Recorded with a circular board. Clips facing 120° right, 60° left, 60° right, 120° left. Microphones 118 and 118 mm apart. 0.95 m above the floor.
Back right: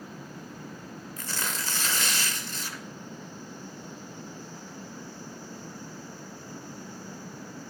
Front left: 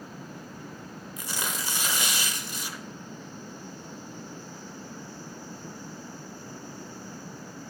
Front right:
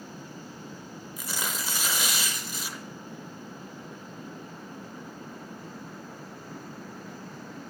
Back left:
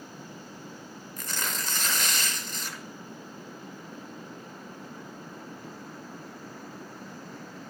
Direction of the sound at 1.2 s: 5° left.